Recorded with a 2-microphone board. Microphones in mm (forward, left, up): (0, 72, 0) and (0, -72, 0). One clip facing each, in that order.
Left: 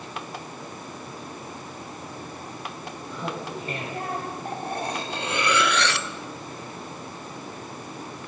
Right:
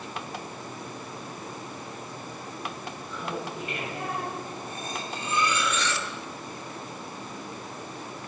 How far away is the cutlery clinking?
About 1.1 m.